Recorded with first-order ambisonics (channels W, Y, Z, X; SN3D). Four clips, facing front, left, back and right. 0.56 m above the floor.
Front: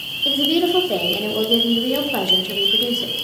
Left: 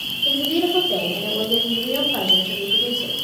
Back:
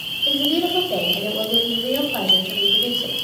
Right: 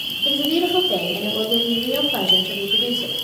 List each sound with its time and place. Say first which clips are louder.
0.2 s a woman speaking: right 1 dB, front 2 dB; 10° right, 1.2 m